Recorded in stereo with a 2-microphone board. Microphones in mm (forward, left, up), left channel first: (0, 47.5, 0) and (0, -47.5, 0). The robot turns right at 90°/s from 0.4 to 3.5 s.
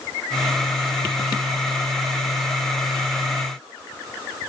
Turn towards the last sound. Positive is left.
No sound to turn to.